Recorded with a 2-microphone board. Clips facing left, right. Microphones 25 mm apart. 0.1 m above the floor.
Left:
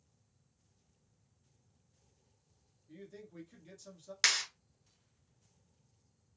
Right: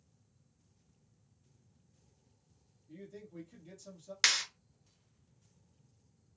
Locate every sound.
2.9 s a man speaking: 20° left (ahead or behind), 1.2 m
4.2 s a clap: 5° right (ahead or behind), 0.9 m